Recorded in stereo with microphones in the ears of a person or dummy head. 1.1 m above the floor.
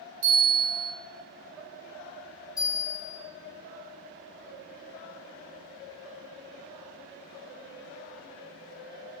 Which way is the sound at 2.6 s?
5° right (ahead or behind).